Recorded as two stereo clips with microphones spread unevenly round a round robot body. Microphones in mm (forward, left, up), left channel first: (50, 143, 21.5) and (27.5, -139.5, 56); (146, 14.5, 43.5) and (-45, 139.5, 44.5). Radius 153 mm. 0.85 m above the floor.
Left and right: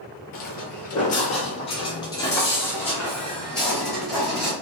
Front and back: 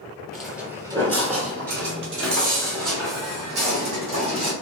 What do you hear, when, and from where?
0.3 s footsteps: 50° left, 0.9 m; by 4.5 s straight behind, 2 m